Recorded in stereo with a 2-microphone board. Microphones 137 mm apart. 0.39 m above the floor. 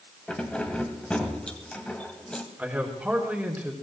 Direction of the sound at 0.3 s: 10° left (ahead or behind).